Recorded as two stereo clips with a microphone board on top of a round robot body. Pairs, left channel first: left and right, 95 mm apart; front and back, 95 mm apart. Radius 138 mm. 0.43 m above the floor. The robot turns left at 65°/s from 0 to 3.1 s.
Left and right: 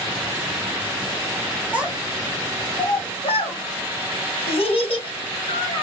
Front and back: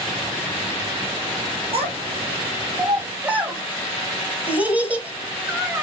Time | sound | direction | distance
1.7 | a child speaking | 165° right | 1.6 m